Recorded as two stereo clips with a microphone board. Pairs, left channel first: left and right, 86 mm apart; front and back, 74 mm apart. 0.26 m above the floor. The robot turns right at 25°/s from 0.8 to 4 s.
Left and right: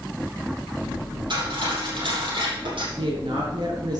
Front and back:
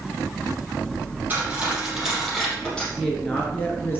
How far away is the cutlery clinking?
About 5 m.